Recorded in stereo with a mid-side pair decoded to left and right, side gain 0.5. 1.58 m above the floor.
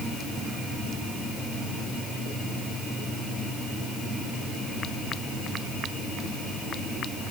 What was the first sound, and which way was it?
Only background noise.